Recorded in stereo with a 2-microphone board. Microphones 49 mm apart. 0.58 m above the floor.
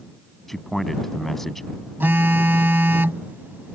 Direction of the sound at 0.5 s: 5° left (ahead or behind).